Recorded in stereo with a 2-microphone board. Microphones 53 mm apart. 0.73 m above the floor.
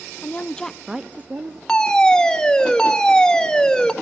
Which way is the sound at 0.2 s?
30° left (ahead or behind).